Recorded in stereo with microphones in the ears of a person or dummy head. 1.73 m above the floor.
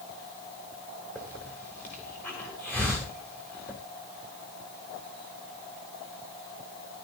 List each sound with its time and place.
1.1 s a hiss: 10° left (ahead or behind), 2.5 m